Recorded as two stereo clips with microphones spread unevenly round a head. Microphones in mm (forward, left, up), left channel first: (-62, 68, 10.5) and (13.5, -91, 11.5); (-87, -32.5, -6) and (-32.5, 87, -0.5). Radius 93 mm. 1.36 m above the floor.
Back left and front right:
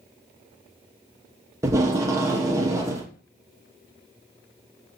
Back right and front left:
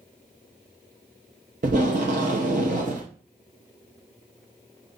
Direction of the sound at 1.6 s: 10° left.